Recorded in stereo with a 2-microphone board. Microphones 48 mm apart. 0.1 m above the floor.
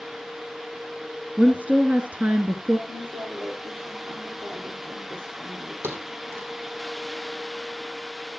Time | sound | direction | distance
1.4 | a woman speaking | 30° right (ahead or behind) | 1.9 m
2.9 | a woman speaking | 45° right (ahead or behind) | 7 m
5.8 | a thud | 60° right (ahead or behind) | 2.5 m